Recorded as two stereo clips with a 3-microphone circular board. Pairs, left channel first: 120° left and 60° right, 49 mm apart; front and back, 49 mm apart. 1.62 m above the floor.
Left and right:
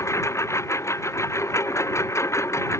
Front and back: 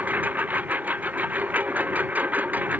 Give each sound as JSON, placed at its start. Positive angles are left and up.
{"t": 0.0, "sound": "a lawn mower", "azimuth_deg": 125}